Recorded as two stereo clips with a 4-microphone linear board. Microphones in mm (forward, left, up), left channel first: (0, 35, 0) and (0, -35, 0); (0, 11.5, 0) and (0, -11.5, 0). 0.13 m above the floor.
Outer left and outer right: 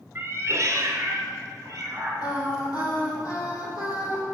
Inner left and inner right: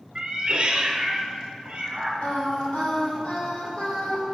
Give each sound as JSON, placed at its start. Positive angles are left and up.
{"t": 0.1, "sound": "a cat meowing", "side_deg": -30, "distance_m": 0.7}
{"t": 2.2, "sound": "singing", "side_deg": 65, "distance_m": 2.5}